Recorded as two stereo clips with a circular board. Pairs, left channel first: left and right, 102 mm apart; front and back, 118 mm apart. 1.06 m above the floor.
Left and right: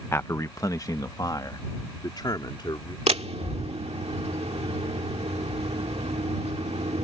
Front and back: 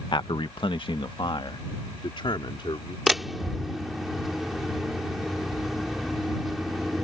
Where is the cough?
I don't hear a cough.